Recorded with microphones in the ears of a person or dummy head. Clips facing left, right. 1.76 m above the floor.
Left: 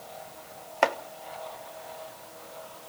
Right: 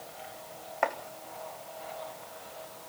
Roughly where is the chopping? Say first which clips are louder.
Left 5 dB; left.